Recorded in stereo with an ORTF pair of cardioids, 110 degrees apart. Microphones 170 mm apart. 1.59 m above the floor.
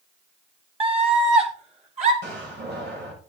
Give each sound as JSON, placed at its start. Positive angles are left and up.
{"t": 0.8, "sound": "a scream", "azimuth_deg": -35, "distance_m": 4.0}
{"t": 2.2, "sound": "a door slam", "azimuth_deg": -70, "distance_m": 7.0}